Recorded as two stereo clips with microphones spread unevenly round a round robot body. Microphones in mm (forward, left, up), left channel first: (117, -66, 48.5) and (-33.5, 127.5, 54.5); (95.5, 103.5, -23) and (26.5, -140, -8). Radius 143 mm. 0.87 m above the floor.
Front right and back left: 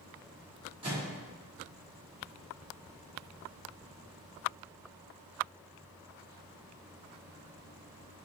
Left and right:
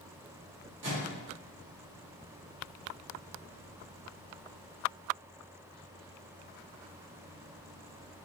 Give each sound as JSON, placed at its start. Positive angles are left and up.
{"t": 0.8, "sound": "a microwave", "azimuth_deg": -160, "distance_m": 1.7}